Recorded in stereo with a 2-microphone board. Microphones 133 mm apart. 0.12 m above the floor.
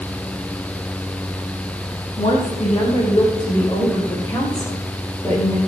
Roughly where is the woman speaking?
Left.